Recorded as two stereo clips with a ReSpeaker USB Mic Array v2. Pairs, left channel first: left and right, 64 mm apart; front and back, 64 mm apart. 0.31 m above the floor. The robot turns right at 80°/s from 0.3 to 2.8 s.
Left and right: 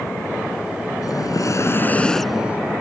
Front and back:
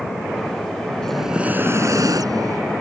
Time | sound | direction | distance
1.0 | breathing | 80° left | ?